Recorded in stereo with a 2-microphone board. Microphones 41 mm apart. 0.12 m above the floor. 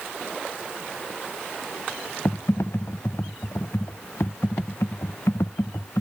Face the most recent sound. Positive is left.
turn(degrees=85)